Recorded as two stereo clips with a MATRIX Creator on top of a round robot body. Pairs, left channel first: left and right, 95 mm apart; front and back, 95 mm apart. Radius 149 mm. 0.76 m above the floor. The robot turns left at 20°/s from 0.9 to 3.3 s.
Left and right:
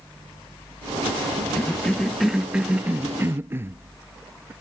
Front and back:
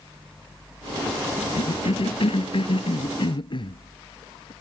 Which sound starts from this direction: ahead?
A cough, at 1.6 s.